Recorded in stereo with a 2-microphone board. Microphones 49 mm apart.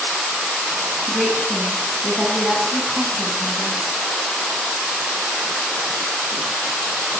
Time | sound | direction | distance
1.1 | a woman speaking | centre (ahead or behind) | 8 m